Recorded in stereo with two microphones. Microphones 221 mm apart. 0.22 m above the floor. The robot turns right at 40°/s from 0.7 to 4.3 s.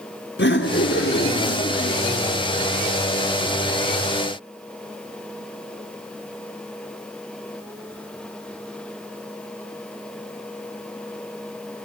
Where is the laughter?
75° left, 2.5 m; by 2.0 s 125° left, 2.5 m.